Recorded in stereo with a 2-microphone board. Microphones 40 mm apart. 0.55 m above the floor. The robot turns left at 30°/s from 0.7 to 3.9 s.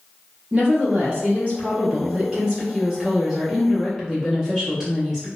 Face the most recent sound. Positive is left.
turn(degrees=-165)